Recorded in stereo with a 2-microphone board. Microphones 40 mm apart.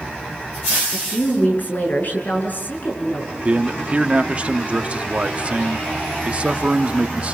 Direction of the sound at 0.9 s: 50° left (ahead or behind).